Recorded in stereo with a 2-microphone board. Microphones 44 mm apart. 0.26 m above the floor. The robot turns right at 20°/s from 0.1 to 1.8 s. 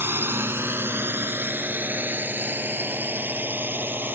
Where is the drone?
60° right (ahead or behind); by 4.1 s 50° right (ahead or behind).